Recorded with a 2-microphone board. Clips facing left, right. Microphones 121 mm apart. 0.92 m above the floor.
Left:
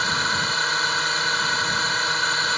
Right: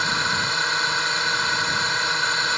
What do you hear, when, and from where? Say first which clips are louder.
0.0 s a drone: even; centre (ahead or behind)